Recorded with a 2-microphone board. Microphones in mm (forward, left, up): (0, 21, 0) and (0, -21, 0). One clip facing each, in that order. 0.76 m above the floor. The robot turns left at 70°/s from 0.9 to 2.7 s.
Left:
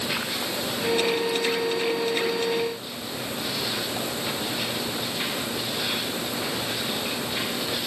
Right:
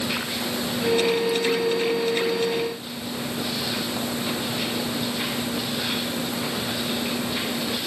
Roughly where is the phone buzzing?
No phone buzzing in this recording.